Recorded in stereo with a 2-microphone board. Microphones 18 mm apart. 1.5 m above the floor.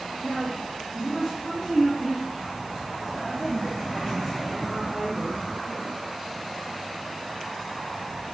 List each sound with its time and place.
0.2 s a woman speaking: 5° left (ahead or behind), 1.3 m